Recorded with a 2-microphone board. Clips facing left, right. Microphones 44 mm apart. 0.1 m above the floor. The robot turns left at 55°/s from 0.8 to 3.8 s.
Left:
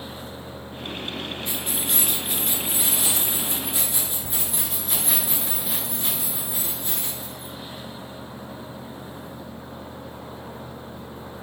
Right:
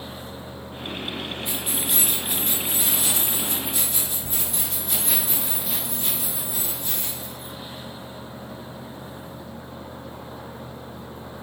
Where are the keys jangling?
15° right (ahead or behind), 1.1 m; by 7.5 s 20° left (ahead or behind), 1.1 m.